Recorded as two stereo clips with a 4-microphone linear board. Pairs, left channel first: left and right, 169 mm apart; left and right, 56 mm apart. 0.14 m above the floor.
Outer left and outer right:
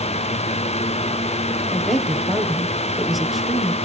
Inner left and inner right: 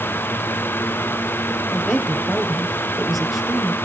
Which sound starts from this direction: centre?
A woman speaking, at 1.7 s.